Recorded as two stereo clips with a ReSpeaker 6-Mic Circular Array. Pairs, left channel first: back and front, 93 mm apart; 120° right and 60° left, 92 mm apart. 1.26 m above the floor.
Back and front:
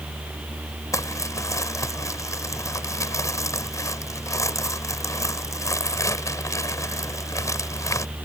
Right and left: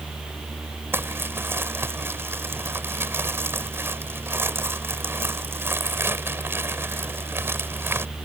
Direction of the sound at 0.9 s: 125° left.